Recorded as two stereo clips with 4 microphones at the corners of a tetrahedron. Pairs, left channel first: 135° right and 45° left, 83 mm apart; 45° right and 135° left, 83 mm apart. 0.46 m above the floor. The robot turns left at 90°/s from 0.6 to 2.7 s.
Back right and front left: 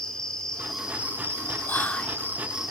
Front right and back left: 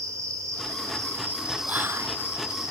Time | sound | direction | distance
0.0 | an insect | 145° left | 1.0 m
1.7 | whispering | 170° right | 0.8 m